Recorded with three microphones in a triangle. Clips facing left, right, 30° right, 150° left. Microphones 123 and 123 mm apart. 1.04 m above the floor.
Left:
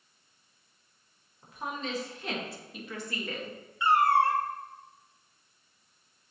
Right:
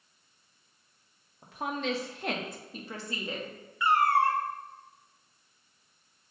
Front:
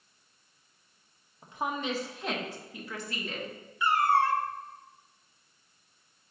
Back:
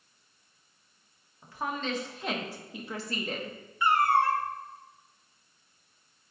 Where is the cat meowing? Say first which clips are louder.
Left 1 dB, back 1 dB; 145° left, 0.9 m.